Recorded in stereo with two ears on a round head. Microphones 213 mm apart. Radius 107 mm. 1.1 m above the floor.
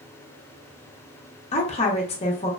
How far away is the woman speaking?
About 0.7 m.